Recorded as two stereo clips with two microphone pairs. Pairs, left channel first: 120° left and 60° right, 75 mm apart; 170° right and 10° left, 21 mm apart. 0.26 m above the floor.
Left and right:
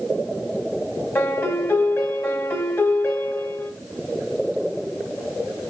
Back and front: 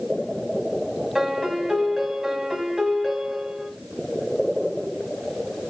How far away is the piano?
About 1.0 m.